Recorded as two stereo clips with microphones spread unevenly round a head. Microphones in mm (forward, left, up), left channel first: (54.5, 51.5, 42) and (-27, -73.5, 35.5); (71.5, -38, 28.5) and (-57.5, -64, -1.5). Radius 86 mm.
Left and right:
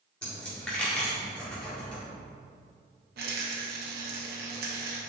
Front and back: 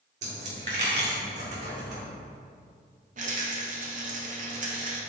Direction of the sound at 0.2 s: 135° left.